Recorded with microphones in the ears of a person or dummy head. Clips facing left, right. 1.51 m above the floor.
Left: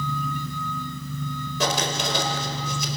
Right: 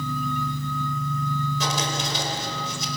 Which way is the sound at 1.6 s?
55° left (ahead or behind).